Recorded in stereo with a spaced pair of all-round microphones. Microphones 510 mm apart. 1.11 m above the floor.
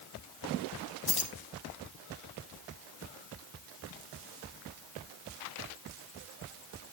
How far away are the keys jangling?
About 1.0 m.